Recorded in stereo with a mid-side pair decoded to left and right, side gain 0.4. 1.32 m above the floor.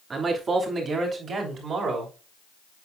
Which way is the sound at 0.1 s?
50° right.